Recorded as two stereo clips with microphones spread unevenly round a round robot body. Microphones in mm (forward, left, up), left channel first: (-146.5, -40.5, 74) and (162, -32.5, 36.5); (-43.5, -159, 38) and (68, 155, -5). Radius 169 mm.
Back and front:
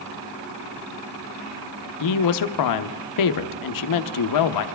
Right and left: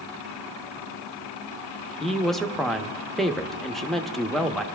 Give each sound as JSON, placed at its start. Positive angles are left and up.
{"t": 2.0, "sound": "a woman speaking", "azimuth_deg": 160, "distance_m": 0.9}